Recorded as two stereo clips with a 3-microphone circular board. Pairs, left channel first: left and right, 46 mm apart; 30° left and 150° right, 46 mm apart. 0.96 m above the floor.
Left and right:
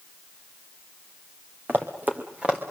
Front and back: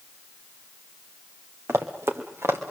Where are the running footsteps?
135° right, 3 m; by 2.7 s 155° right, 4 m.